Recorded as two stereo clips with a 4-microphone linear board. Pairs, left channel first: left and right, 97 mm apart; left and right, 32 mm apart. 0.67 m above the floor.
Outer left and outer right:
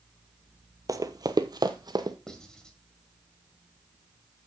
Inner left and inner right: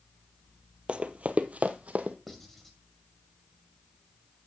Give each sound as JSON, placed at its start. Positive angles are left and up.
{"t": 0.9, "sound": "running footsteps", "side_deg": -35, "distance_m": 0.8}
{"t": 2.3, "sound": "writing", "side_deg": 5, "distance_m": 1.8}